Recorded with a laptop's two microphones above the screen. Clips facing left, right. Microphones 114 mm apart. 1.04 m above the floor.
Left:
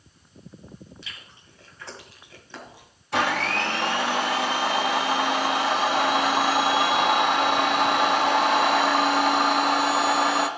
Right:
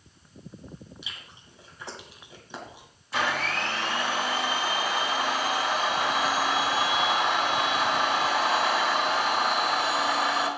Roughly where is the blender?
Left.